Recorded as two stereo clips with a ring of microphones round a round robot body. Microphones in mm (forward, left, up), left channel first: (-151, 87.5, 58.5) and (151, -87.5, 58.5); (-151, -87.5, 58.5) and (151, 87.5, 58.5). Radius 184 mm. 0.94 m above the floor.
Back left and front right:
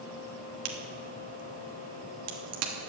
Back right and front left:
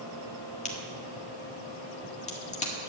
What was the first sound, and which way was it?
A crack, 80° right.